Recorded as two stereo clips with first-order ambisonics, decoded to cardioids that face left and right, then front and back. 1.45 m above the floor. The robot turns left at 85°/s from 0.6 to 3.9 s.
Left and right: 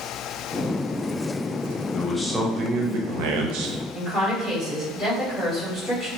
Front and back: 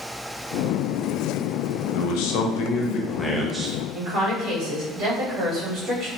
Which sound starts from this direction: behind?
A woman speaking, at 3.9 s.